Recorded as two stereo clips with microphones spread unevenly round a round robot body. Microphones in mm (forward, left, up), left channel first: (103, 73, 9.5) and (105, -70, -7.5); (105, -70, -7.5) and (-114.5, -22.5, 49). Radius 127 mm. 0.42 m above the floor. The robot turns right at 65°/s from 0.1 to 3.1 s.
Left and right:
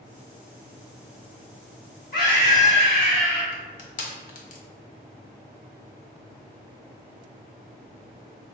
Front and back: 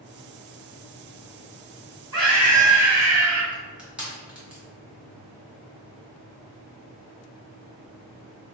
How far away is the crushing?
About 0.6 m.